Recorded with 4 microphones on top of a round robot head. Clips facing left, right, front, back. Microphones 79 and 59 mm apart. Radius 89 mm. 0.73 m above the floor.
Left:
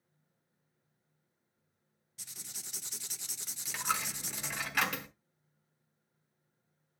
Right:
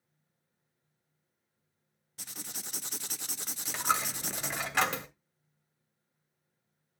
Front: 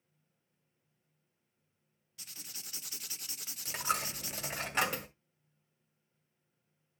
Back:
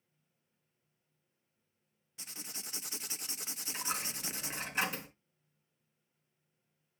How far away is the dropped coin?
About 1.5 m.